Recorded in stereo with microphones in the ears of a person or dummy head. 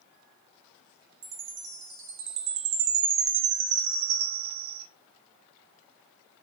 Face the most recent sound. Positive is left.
turn(degrees=-65)  # may be behind; listen again after turning